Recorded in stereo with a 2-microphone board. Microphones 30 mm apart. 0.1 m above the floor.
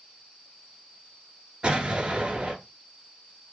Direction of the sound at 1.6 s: 35° right (ahead or behind).